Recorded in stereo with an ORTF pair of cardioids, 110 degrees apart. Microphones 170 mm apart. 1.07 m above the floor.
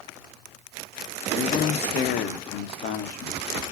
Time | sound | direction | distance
1.4 | a man speaking | 65° left | 0.7 m